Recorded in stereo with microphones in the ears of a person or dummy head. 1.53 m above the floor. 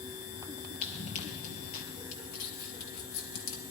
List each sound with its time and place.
0.8 s running footsteps: 35° left (ahead or behind), 2 m; by 1.8 s 50° left (ahead or behind), 2.5 m
2.1 s crumpling: 65° left (ahead or behind), 3 m